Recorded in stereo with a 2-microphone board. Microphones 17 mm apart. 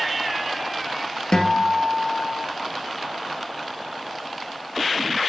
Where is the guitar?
45° left (ahead or behind), 2 m.